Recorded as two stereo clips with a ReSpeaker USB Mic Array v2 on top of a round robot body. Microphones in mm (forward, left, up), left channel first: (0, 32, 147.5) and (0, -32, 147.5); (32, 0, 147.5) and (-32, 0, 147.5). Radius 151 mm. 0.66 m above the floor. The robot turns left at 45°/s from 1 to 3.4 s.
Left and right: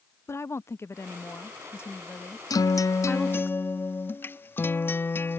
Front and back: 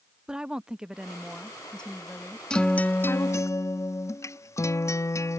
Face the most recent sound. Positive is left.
turn(degrees=35)